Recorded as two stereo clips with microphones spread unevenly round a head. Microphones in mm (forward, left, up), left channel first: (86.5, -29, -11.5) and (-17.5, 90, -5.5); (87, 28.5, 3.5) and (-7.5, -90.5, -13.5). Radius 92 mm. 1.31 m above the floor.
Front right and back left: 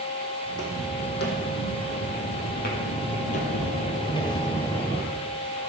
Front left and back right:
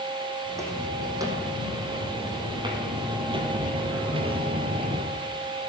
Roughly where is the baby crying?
I don't hear a baby crying.